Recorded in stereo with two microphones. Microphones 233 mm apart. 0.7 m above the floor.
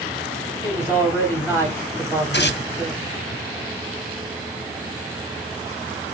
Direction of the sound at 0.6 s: 10° right (ahead or behind).